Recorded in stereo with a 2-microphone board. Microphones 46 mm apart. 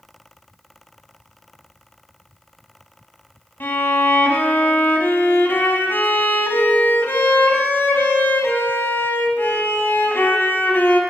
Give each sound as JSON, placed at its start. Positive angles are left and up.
{"t": 3.6, "sound": "a violin", "side_deg": 50, "distance_m": 1.1}